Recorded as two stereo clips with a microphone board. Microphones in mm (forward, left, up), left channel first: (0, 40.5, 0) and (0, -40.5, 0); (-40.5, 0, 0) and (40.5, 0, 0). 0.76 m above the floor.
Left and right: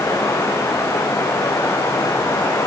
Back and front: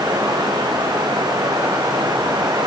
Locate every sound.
0.0 s running water: 35° left, 6.5 m